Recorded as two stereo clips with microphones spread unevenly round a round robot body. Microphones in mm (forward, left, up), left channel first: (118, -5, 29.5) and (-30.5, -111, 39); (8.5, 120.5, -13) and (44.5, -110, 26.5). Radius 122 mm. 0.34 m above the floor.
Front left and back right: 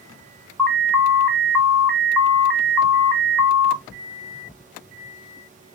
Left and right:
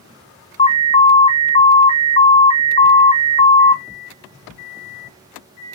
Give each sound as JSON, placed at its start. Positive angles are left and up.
{"t": 0.6, "sound": "an alarm", "azimuth_deg": 115, "distance_m": 0.8}